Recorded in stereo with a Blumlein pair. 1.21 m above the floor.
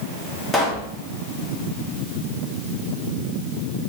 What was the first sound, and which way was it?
A pop, 5° left.